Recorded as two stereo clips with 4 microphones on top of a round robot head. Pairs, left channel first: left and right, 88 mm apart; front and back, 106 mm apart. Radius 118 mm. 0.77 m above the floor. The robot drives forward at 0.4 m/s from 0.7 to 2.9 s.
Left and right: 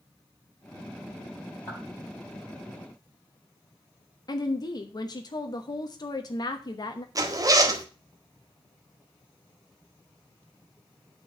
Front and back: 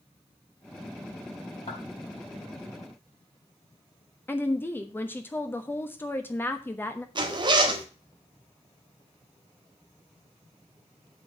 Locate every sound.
1.7 s a clap: 20° left, 5 m
4.3 s a woman speaking: 65° left, 1.1 m
7.2 s a zipper: 135° right, 1.7 m